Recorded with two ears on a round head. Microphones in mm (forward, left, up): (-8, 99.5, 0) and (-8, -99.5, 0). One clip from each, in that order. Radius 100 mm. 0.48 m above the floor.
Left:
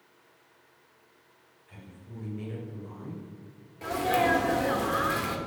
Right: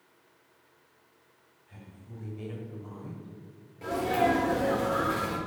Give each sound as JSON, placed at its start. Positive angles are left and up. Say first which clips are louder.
{"t": 1.7, "sound": "a woman speaking", "louder": "left 2 dB", "side_deg": 20, "distance_m": 1.8}
{"t": 3.8, "sound": "a sneeze", "louder": "left 1 dB", "side_deg": 25, "distance_m": 1.4}